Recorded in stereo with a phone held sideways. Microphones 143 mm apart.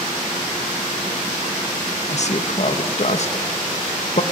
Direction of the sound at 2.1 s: 50° left (ahead or behind).